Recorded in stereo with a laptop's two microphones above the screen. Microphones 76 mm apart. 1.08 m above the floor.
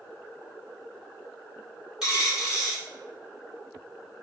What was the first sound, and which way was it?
A dropped coin, 10° right (ahead or behind).